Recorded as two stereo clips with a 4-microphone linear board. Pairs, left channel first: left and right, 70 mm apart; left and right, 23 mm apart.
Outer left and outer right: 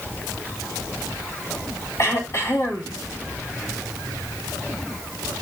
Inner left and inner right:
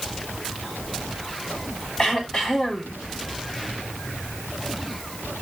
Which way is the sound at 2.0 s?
40° left (ahead or behind).